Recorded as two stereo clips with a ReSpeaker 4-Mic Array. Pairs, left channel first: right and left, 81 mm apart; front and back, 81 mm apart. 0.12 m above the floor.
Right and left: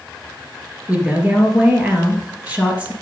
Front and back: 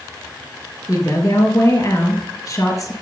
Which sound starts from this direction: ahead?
A woman speaking, at 0.9 s.